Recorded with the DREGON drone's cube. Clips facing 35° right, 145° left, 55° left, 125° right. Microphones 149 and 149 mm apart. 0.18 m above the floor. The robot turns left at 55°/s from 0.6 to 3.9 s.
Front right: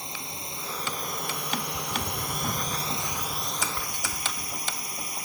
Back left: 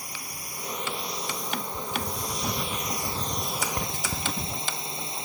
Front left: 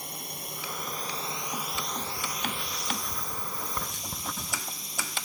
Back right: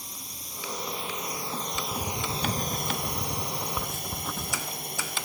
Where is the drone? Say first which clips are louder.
Front right 3 dB, front left 5 dB; 30° left; by 5.2 s 150° right.